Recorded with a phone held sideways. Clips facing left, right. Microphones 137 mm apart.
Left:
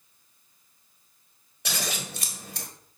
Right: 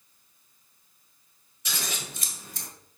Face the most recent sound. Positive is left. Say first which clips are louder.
# left 3 dB
turn(degrees=60)  # may be behind; listen again after turning